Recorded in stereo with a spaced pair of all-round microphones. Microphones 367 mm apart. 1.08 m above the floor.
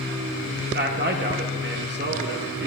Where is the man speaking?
30° right (ahead or behind), 0.9 m.